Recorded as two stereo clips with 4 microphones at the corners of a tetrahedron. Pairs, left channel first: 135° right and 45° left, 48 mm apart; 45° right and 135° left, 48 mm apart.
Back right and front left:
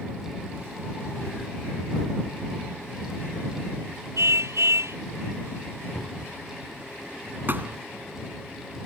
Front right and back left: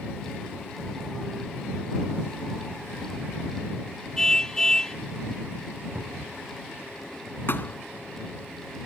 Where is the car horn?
35° left.